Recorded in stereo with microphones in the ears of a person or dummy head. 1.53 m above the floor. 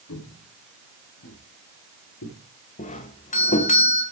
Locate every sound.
0.1 s footsteps: 75° left (ahead or behind), 5.5 m
2.8 s a doorbell: 35° left (ahead or behind), 1.8 m